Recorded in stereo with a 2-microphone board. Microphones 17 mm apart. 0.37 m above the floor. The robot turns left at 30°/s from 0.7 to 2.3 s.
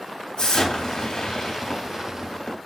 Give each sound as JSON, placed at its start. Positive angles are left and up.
{"t": 0.4, "sound": "an explosion", "azimuth_deg": 85, "distance_m": 0.9}